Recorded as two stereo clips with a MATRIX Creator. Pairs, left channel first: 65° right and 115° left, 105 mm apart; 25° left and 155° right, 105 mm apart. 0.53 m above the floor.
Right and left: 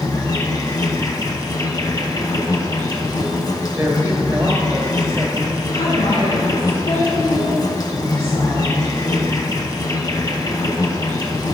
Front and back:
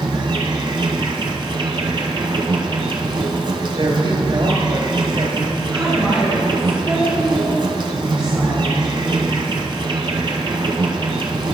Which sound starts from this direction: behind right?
An insect, at 0.0 s.